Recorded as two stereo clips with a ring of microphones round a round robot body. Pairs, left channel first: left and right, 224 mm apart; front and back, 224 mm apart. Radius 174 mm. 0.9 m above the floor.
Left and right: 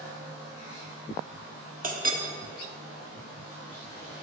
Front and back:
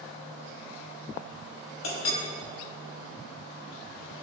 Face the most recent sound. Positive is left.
turn(degrees=-35)